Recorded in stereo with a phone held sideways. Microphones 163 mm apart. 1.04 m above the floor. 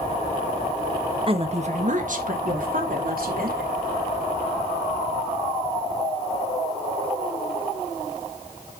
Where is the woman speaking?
35° right (ahead or behind), 1.2 m; by 3.7 s 65° right (ahead or behind), 4 m.